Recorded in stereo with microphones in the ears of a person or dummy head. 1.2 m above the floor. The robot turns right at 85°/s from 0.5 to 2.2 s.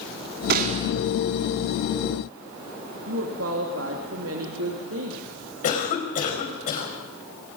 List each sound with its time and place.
0.5 s a gunshot: 55° right, 2 m; by 0.9 s 15° right, 2 m
3.1 s a woman speaking: 75° right (ahead or behind), 2.5 m
5.6 s a cough: 45° left (ahead or behind), 5 m